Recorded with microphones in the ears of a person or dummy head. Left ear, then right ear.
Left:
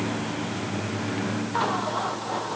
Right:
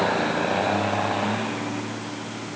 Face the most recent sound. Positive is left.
No sound to turn to.